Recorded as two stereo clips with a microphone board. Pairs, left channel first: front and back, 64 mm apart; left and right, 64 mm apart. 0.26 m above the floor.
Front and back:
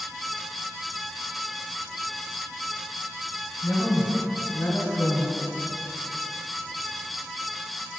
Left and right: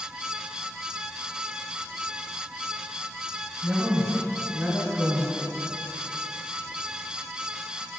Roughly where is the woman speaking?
Ahead right.